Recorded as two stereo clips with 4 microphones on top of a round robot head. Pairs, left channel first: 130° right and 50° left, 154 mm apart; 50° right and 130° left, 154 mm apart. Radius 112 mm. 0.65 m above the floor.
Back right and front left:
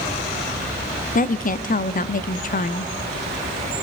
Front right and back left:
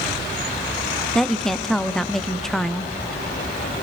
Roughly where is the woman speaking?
Behind right.